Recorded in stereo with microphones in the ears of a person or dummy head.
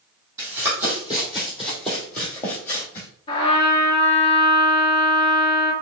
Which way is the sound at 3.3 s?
30° left (ahead or behind).